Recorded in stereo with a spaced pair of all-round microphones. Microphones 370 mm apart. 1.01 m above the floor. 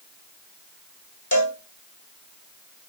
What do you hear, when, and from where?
1.3 s a cowbell: 55° left (ahead or behind), 1.3 m